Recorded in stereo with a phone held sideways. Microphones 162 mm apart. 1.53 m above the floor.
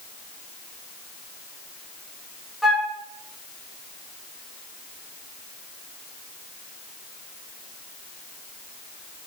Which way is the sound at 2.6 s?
Centre (ahead or behind).